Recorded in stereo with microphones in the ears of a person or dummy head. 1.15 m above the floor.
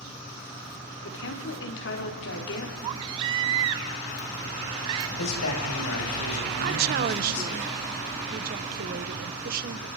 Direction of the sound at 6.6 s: 45° right (ahead or behind).